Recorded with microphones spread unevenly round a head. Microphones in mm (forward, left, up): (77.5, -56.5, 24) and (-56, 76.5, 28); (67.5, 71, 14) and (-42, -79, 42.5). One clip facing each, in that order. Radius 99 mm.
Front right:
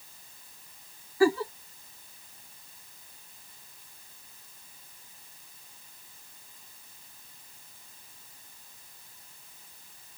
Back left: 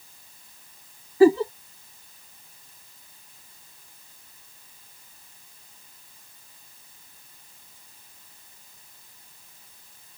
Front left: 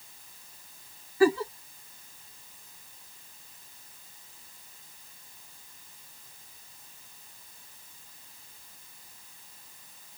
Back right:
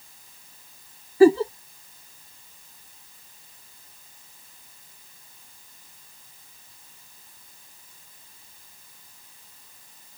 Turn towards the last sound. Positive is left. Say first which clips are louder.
# back left 8 dB, back right 8 dB
turn(degrees=-165)